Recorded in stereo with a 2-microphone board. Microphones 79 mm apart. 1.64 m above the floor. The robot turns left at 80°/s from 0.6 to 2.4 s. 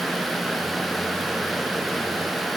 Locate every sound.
Only background noise.